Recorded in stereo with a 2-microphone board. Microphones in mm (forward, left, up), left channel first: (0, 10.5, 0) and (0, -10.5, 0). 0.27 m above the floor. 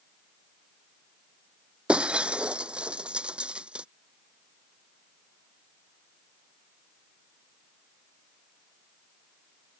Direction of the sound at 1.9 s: 50° right (ahead or behind).